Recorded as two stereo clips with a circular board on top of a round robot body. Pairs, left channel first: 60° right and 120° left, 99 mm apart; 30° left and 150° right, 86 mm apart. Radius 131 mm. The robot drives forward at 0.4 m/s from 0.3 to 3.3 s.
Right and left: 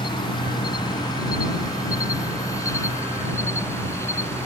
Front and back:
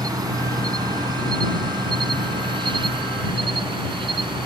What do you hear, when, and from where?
0.0 s an insect: 105° right; by 4.5 s 125° right